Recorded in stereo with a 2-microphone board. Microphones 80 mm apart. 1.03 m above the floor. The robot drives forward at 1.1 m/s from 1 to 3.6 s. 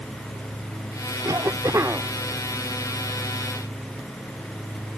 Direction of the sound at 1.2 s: 50° right (ahead or behind).